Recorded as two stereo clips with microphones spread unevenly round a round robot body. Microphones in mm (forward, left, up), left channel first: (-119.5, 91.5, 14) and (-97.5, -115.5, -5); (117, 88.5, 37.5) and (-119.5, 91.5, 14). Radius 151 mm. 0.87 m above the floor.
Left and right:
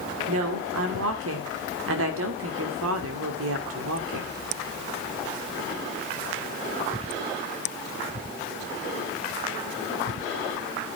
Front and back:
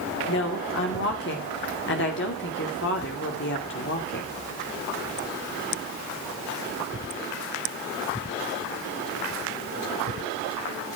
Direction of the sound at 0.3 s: 55° right.